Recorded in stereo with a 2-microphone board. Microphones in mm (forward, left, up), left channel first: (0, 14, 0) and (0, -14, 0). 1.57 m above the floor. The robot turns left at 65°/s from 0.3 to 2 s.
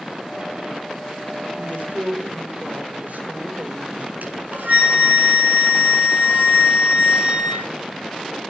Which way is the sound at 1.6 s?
90° right.